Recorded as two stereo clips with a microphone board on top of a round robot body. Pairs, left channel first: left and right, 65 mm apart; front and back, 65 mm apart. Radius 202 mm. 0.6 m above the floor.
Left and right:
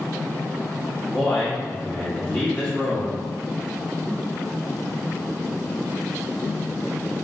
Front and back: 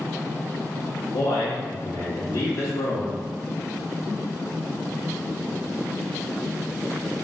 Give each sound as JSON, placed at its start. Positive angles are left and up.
{"t": 1.1, "sound": "a man speaking", "azimuth_deg": 15, "distance_m": 1.6}